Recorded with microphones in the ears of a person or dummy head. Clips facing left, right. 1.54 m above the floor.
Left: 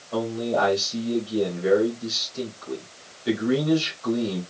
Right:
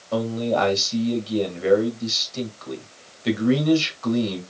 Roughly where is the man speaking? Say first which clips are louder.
Right 2 dB; right.